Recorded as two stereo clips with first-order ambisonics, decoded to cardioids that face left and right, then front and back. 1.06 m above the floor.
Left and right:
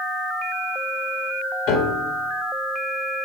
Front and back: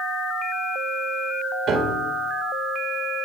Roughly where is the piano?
Behind left.